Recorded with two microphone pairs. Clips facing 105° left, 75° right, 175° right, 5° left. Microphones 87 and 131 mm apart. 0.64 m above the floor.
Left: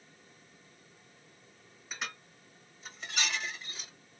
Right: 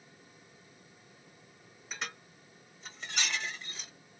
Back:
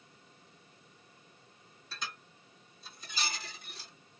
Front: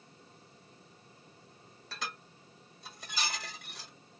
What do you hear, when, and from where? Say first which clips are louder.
1.9 s dishes clattering: even, front 2 dB; 20° left, 1.7 m